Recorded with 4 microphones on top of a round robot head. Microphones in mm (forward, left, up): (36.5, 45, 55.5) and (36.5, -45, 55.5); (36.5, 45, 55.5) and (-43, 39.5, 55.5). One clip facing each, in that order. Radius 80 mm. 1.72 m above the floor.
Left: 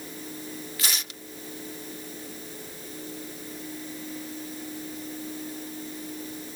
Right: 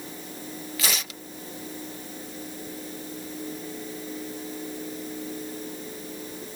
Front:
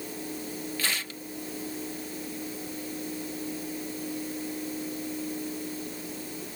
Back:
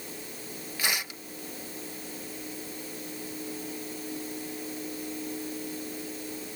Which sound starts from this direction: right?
Tearing paper, at 0.8 s.